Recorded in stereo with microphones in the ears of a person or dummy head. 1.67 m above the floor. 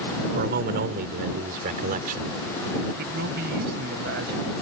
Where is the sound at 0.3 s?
60° right (ahead or behind); by 2.3 s 50° right (ahead or behind).